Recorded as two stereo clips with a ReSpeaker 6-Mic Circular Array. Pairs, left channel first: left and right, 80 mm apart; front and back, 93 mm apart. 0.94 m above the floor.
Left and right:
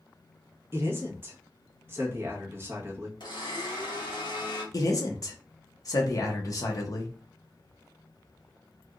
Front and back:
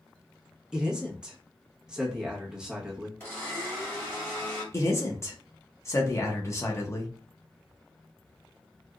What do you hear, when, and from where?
0.7 s a man speaking: 105° right, 1.0 m
3.2 s a blender: 65° left, 1.5 m
4.7 s a man speaking: 55° left, 0.9 m